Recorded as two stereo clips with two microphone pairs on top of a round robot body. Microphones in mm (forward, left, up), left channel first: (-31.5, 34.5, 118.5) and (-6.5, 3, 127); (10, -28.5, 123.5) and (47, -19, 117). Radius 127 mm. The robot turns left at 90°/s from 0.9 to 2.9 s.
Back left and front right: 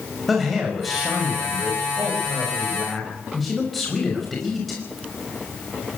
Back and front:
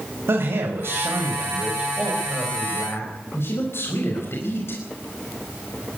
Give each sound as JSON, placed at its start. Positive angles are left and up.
{"t": 0.3, "sound": "a man speaking", "azimuth_deg": 35, "distance_m": 5.0}